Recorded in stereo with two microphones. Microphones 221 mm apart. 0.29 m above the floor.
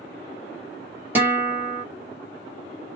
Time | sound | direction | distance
1.1 | a guitar | 10° right (ahead or behind) | 1.8 m